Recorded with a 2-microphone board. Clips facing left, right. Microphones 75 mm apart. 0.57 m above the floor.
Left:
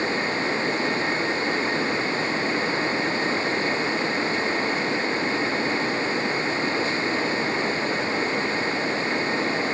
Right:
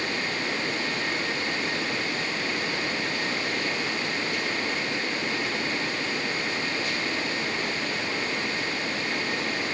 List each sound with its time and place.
Only background noise.